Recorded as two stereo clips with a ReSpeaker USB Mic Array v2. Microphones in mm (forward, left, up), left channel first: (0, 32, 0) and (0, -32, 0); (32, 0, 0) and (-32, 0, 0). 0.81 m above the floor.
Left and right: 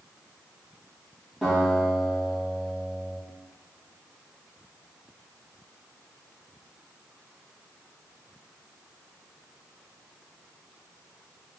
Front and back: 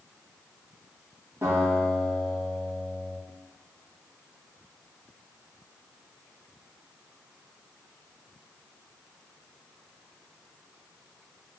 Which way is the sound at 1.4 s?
160° right.